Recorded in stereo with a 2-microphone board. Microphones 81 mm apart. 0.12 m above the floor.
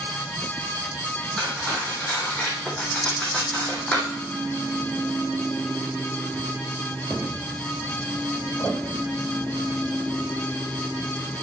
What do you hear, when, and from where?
1.4 s cutlery clinking: 10° left (ahead or behind), 3 m